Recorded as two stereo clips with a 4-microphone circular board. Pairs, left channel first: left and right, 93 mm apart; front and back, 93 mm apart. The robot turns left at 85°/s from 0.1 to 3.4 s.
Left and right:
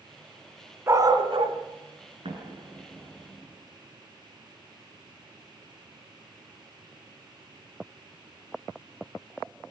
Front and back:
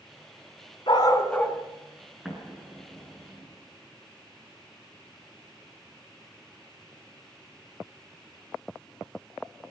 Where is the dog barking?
30° right, 2.5 m; by 1.6 s 90° right, 2.5 m.